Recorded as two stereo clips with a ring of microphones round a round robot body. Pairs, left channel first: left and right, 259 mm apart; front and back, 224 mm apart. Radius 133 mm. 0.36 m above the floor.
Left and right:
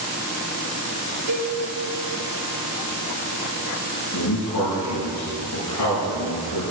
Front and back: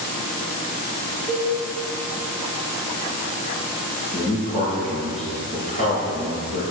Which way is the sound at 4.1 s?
55° left.